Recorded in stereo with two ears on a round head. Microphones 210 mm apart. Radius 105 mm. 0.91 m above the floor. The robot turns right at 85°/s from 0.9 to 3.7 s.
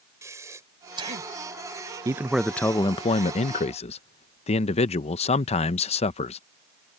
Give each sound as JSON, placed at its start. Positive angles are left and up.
{"t": 0.2, "sound": "breathing", "side_deg": -15}
{"t": 2.0, "sound": "a man speaking", "side_deg": -15}